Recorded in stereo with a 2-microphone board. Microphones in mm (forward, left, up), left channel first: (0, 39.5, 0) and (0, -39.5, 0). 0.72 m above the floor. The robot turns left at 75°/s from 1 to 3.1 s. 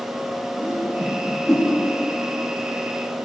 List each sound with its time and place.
0.6 s a whoosh: 30° right (ahead or behind), 7 m; by 1.7 s 20° left (ahead or behind), 7 m